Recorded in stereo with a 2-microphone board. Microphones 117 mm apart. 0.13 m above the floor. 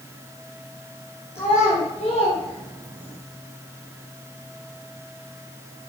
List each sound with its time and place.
1.4 s a child speaking: 65° left (ahead or behind), 2.5 m; by 3.2 s 50° left (ahead or behind), 3.5 m